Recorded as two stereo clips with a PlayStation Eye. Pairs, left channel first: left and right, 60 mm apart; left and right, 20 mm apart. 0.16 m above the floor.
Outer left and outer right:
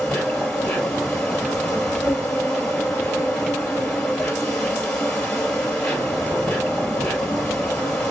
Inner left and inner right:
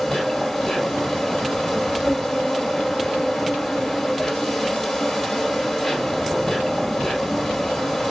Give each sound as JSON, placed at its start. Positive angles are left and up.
{"t": 0.0, "sound": "an insect", "side_deg": 15, "distance_m": 2.5}